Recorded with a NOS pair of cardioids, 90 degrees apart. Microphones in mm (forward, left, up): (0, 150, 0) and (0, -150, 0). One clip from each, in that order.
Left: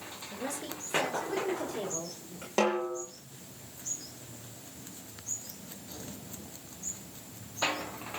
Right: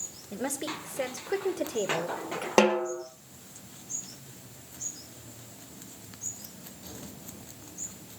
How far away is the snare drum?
About 5.5 m.